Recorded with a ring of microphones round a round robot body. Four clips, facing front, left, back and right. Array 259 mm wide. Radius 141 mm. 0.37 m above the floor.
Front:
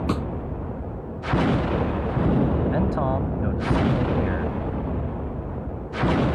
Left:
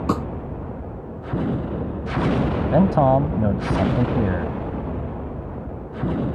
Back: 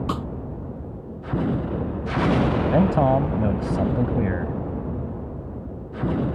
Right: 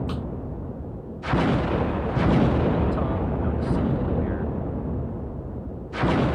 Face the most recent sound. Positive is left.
turn(degrees=115)